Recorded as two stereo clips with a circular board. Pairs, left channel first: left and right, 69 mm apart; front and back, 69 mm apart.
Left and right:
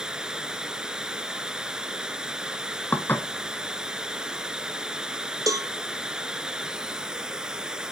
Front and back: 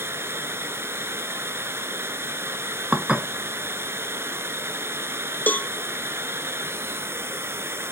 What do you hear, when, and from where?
0.0 s running water: 160° right, 0.9 m
2.9 s dishes clattering: 120° left, 0.8 m
5.5 s a cowbell: 65° right, 0.5 m